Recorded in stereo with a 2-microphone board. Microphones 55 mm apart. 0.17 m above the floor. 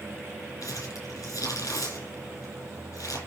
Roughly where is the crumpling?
Left.